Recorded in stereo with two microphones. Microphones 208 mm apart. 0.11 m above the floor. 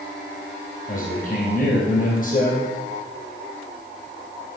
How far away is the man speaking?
About 3 m.